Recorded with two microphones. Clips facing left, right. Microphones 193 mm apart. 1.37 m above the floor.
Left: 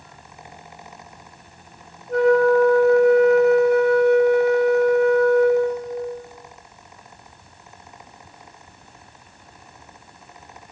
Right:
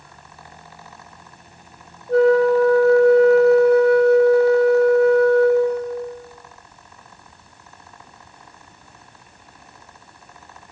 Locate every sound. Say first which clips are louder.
2.1 s a flute: right 2 dB; 30° right (ahead or behind), 6.5 m